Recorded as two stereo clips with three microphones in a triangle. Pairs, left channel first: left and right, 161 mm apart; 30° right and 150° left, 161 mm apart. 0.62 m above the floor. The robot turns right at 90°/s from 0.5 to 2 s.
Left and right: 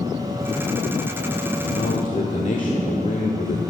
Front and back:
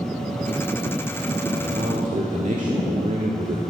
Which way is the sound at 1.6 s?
85° left.